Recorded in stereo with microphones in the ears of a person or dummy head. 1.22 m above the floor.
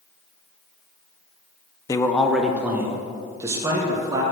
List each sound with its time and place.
1.9 s a man speaking: 15° left (ahead or behind), 0.6 m; by 4.2 s 25° right (ahead or behind), 2 m